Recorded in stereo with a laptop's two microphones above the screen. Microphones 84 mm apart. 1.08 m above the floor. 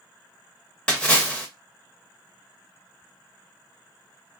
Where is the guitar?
I don't hear a guitar.